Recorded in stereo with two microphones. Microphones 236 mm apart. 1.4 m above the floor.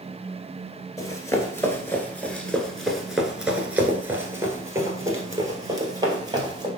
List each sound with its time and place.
1.0 s running footsteps: 15° left (ahead or behind), 1.6 m; by 6.7 s 15° right (ahead or behind), 2.5 m